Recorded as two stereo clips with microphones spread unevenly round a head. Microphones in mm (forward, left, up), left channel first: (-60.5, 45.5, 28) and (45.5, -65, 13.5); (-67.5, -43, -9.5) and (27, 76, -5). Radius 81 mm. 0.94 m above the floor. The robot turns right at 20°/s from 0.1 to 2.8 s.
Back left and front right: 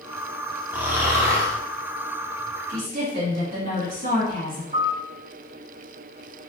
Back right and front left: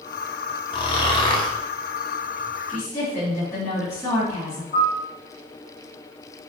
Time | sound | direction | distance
0.7 | snoring | 125° right | 0.5 m
2.7 | a woman speaking | 65° right | 1.7 m
4.7 | a piano | 85° right | 1.6 m